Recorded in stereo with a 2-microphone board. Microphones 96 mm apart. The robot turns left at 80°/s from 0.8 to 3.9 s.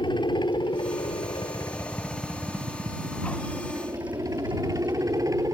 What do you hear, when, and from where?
0.0 s a helicopter: 110° left; by 5.5 s 135° right